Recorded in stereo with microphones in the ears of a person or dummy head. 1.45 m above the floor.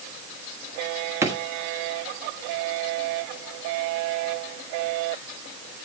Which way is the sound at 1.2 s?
15° right (ahead or behind).